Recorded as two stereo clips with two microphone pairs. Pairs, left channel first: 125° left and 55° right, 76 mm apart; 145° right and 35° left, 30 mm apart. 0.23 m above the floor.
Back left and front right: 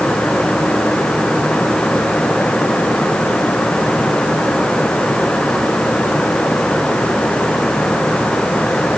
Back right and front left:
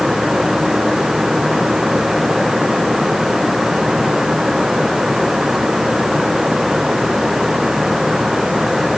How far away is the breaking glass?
I don't hear breaking glass.